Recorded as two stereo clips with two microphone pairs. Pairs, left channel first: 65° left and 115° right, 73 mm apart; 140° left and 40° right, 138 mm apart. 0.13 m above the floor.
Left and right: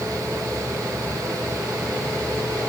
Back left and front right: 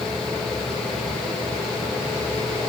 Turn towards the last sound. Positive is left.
No sound to turn to.